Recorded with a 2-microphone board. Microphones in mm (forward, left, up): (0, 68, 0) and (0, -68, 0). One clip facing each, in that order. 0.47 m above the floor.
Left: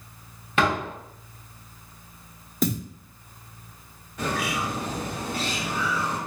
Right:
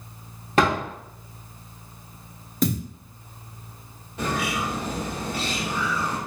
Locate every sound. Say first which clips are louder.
0.6 s a door slam: right 3 dB; 40° right (ahead or behind), 0.8 m
2.6 s a thud: right 2 dB; centre (ahead or behind), 0.7 m
4.2 s a bird: right 1 dB; 25° right (ahead or behind), 1.3 m